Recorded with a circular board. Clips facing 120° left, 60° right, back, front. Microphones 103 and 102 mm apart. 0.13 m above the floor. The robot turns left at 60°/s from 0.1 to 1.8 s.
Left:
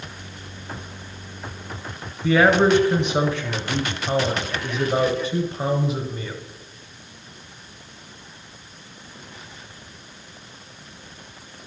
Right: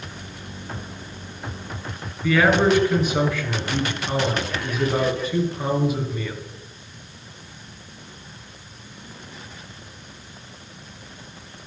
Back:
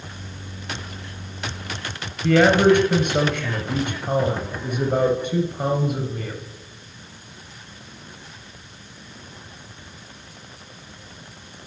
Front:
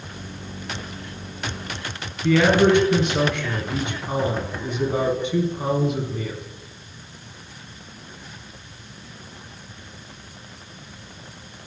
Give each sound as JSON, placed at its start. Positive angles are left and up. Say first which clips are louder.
{"t": 2.2, "sound": "a man speaking", "louder": "left 1 dB, back 2 dB", "azimuth_deg": 180, "distance_m": 2.5}